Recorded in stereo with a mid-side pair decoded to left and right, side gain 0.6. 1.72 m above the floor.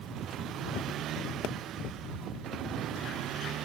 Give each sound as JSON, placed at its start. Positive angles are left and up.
{"t": 1.4, "sound": "a pop", "azimuth_deg": 65}